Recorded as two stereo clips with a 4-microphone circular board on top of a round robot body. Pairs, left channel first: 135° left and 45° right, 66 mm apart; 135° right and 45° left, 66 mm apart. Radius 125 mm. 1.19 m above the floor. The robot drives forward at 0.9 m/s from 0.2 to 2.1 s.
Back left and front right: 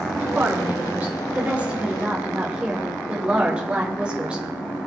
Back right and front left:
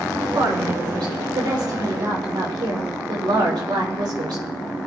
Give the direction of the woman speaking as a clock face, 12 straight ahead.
11 o'clock.